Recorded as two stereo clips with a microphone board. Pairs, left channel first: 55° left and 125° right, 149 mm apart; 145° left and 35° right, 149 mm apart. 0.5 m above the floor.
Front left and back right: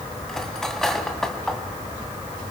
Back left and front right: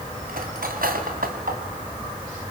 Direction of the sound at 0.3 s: 30° right.